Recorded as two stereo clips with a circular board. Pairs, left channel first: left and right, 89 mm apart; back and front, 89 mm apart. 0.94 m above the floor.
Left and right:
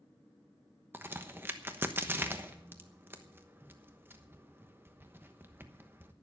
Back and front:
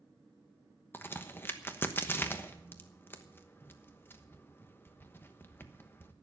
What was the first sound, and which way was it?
A crack, 135° right.